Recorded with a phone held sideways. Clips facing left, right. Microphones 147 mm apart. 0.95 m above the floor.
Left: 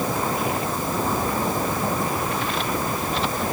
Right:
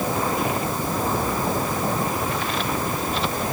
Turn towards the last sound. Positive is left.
No sound to turn to.